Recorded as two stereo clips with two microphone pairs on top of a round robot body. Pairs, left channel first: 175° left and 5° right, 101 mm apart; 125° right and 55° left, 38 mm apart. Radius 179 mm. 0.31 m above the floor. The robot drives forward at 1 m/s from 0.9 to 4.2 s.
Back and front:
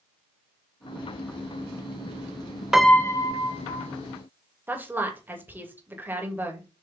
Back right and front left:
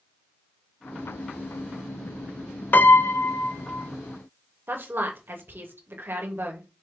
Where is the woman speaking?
70° left, 2.5 m.